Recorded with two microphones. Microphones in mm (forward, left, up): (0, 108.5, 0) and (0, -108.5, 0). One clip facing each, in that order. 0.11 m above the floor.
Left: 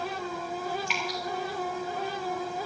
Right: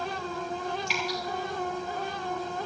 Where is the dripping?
40° right (ahead or behind), 5 m.